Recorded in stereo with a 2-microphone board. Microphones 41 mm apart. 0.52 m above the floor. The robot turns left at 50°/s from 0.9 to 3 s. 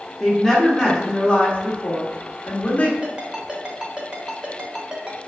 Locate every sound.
0.2 s a woman speaking: 165° left, 1.2 m; by 2.9 s 65° left, 1.2 m
3.0 s a ringtone: 25° right (ahead or behind), 0.9 m